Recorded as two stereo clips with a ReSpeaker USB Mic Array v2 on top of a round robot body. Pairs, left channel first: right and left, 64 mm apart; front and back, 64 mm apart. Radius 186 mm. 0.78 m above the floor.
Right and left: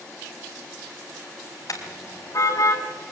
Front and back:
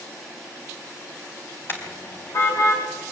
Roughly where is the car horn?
Ahead right.